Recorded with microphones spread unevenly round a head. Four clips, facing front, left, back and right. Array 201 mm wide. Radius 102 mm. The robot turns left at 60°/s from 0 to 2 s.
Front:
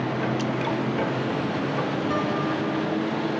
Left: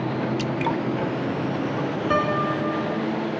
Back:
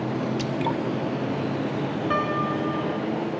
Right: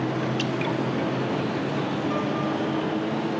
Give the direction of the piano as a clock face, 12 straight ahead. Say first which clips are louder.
Left 3 dB, even; 9 o'clock.